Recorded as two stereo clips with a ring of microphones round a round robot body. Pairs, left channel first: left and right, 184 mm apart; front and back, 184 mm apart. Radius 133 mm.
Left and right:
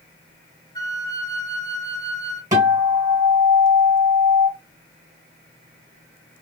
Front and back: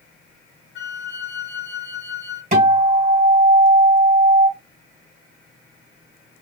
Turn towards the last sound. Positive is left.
turn(degrees=-155)